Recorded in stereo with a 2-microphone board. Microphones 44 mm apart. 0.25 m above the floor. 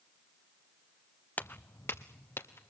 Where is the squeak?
I don't hear a squeak.